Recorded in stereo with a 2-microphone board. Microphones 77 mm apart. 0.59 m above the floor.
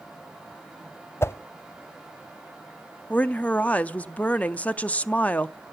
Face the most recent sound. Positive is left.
turn(degrees=20)  # may be behind; listen again after turning